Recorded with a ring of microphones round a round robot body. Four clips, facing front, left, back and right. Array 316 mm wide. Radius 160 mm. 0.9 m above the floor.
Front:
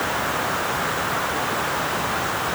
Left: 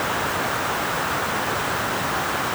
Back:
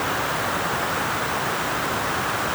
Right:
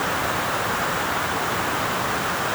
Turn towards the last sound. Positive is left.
No sound to turn to.